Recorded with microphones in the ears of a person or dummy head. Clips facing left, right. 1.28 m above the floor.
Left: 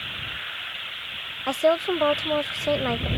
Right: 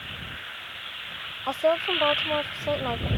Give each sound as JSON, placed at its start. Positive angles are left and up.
{"t": 1.5, "sound": "a woman speaking", "side_deg": 25}